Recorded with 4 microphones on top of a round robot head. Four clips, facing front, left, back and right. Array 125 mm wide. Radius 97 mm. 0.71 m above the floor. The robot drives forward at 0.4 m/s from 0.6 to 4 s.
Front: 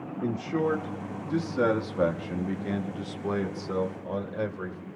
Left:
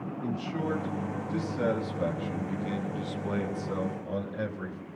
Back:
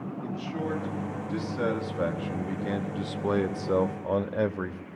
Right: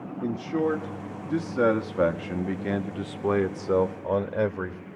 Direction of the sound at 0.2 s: 45° right.